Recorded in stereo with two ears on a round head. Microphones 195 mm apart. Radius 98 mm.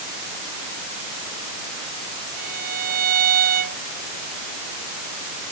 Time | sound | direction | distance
2.4 | a violin | 40° right (ahead or behind) | ?